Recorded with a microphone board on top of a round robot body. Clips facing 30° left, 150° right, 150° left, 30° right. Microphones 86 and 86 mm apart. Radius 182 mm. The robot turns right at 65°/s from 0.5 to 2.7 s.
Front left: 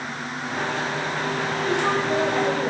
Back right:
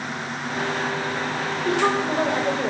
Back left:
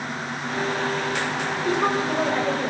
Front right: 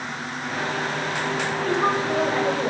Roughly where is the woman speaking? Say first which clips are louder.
Back right 2 dB, even; behind right.